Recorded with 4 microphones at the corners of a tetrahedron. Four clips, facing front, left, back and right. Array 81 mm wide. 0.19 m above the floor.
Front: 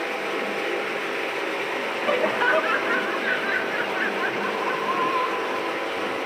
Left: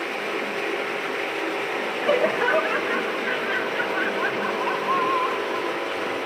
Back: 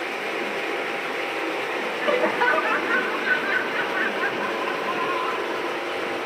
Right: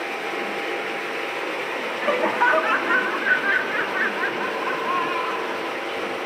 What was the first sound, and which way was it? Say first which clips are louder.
Laughter: right 1 dB, back 1 dB; 100° right.